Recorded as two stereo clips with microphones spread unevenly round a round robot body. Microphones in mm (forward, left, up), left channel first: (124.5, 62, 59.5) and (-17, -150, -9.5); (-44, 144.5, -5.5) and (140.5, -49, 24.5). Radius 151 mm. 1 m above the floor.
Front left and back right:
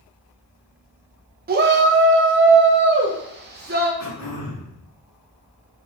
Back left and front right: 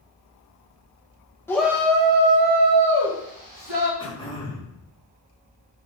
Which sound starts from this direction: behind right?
A shout, at 1.5 s.